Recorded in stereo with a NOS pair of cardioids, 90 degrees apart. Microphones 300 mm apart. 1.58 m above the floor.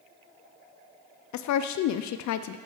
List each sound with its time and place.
1.3 s a woman speaking: 70° left, 0.6 m